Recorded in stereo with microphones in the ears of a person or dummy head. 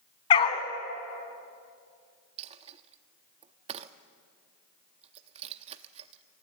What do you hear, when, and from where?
0.3 s a dog barking: 30° left (ahead or behind), 2 m
2.4 s a dropped coin: 30° right (ahead or behind), 0.8 m